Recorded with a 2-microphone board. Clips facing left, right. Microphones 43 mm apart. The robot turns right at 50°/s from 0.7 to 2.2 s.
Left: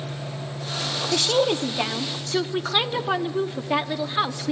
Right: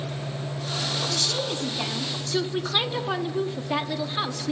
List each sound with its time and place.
1.1 s a woman speaking: 105° left, 1.2 m; by 4.5 s 160° left, 1.2 m